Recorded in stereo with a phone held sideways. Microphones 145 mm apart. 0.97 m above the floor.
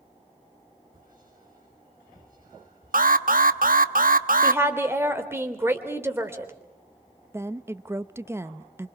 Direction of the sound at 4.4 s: 15° right (ahead or behind).